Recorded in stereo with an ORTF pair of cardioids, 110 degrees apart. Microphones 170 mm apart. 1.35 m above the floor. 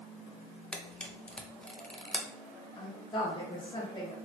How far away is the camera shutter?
About 0.5 m.